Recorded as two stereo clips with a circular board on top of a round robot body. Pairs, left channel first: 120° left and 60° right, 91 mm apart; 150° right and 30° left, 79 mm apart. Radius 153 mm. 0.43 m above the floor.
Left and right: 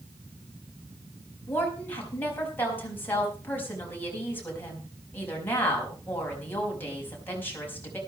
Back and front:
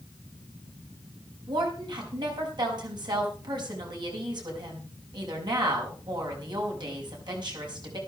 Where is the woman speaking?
50° left, 4.5 m.